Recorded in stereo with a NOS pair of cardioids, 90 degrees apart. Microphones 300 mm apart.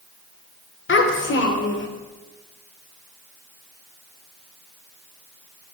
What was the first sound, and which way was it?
A child speaking, 45° left.